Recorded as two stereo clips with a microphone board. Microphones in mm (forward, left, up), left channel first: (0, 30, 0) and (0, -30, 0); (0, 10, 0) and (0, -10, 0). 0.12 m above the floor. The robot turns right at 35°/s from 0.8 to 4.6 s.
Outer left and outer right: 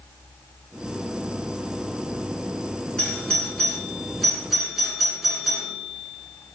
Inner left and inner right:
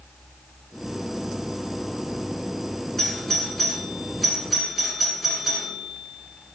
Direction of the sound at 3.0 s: 15° left (ahead or behind).